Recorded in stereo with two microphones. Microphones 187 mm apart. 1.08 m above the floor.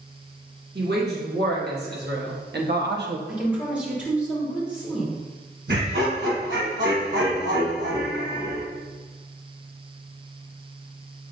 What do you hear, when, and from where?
0.8 s a woman speaking: 60° right (ahead or behind), 2 m; by 3.2 s 70° right (ahead or behind), 1.0 m
3.3 s a woman speaking: 5° right (ahead or behind), 2.5 m
5.7 s laughter: 70° right (ahead or behind), 1.4 m